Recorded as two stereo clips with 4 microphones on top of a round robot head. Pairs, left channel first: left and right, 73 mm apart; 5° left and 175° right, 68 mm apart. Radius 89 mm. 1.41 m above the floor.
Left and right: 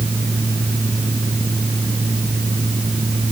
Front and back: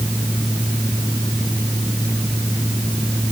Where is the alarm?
No alarm in this recording.